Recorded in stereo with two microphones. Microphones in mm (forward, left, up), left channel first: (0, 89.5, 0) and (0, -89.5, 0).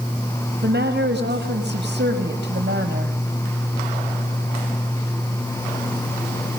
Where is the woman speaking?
75° right (ahead or behind), 5 m.